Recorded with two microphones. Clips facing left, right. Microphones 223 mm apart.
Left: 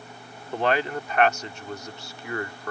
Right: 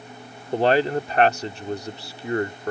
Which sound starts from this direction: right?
A man speaking, at 0.5 s.